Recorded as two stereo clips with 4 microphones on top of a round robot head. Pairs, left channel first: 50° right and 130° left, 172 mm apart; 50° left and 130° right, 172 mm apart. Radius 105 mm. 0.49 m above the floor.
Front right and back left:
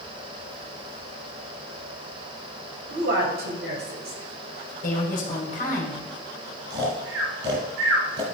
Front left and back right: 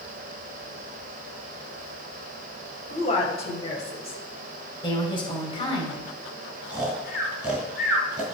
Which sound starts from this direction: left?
A woman speaking, at 2.9 s.